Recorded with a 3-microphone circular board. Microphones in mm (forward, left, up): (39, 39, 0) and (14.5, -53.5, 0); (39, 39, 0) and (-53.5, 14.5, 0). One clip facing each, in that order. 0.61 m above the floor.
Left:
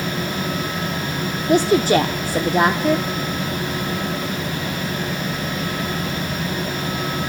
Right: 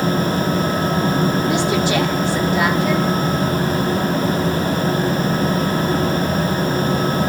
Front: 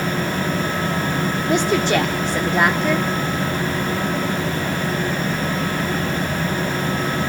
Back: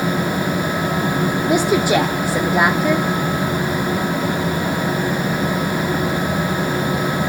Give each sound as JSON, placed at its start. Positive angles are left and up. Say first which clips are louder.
{"t": 1.5, "sound": "a woman speaking", "louder": "left 2 dB, back 2 dB", "azimuth_deg": 115, "distance_m": 1.1}